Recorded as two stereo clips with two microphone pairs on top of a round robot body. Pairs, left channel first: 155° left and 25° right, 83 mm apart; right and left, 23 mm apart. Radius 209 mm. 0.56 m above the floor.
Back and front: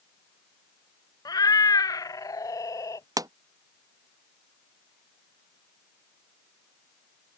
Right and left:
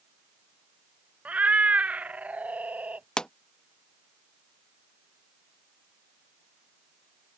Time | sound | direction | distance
1.2 | a cat meowing | 110° left | ?
3.2 | a pop | 45° right | ?